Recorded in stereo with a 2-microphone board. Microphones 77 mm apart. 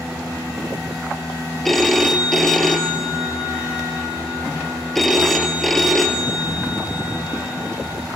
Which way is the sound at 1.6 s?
Centre (ahead or behind).